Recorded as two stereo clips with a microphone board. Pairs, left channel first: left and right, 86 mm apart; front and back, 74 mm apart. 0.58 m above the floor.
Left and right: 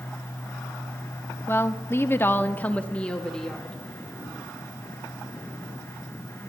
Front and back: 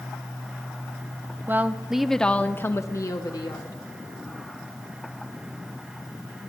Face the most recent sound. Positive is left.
turn(degrees=5)